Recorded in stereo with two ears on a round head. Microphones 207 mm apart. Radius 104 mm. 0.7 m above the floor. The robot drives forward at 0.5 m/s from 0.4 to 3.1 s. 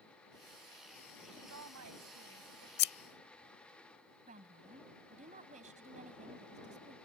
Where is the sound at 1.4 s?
80° right.